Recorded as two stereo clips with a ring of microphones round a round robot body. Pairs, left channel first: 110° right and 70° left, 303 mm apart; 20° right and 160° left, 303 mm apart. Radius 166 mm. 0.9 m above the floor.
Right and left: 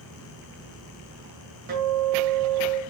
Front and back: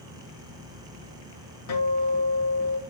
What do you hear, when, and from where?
1.7 s a guitar: 10° left, 1.7 m